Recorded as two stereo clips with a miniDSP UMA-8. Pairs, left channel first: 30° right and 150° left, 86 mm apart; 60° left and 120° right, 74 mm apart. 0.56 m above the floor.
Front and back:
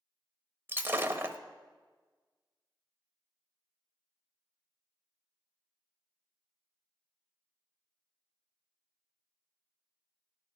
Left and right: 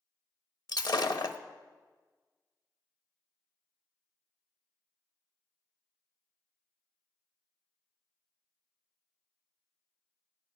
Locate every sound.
0.7 s breaking glass: 85° left, 0.8 m